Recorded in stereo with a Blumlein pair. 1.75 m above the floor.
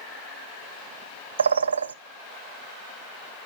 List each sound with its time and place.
1.4 s a bird: 70° right, 0.6 m